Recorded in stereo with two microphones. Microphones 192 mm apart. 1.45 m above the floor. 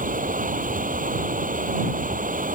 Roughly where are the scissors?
I don't hear scissors.